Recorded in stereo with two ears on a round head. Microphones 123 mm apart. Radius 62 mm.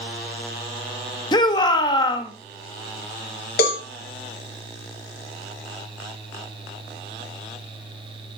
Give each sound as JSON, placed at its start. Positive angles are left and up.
{"t": 1.3, "sound": "a shout", "side_deg": 30, "distance_m": 1.2}
{"t": 3.6, "sound": "a cowbell", "side_deg": 75, "distance_m": 2.5}